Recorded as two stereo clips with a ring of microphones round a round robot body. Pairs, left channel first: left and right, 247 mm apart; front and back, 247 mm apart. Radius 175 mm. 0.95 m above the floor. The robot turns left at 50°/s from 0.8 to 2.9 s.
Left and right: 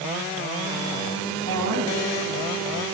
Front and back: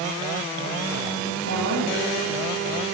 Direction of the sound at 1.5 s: 120° right.